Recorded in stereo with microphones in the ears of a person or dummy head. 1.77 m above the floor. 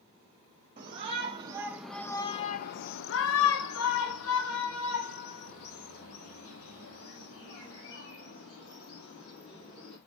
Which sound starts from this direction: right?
A shout, at 0.8 s.